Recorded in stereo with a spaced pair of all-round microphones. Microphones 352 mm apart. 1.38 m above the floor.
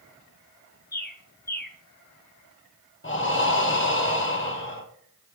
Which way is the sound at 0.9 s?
30° left (ahead or behind).